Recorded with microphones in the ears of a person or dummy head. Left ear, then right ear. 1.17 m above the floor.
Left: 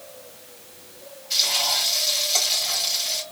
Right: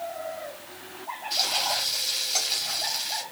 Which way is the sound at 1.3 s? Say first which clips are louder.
Left 4 dB; 15° left (ahead or behind).